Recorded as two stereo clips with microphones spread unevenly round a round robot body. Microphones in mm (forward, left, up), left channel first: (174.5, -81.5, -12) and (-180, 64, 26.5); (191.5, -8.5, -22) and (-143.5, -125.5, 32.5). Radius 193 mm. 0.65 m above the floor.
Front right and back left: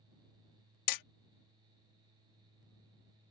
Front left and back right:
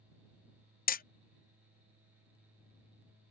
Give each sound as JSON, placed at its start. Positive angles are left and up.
{"t": 0.9, "sound": "hammering", "azimuth_deg": -35}